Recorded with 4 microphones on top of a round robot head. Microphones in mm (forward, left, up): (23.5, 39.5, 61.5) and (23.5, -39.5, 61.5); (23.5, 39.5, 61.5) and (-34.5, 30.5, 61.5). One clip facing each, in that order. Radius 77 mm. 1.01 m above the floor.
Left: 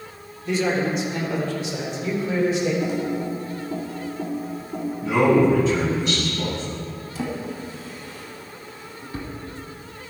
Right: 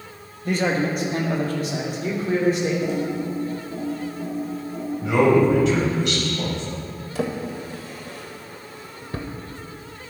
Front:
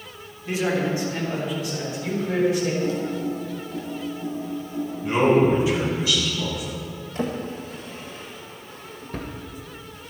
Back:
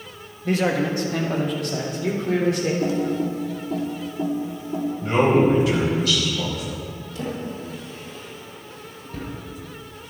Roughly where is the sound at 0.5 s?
Behind right.